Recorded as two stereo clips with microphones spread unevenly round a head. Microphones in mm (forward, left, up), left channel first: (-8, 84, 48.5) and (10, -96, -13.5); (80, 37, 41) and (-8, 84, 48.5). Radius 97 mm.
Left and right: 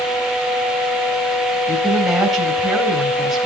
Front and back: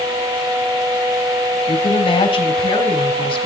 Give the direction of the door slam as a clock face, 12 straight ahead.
I don't hear a door slam.